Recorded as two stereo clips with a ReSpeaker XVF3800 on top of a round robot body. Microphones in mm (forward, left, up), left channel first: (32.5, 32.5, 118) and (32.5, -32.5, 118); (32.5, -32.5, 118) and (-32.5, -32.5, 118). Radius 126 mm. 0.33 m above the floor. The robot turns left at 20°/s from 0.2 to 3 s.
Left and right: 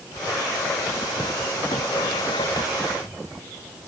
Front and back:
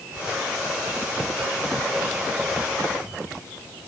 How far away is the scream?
No scream in this recording.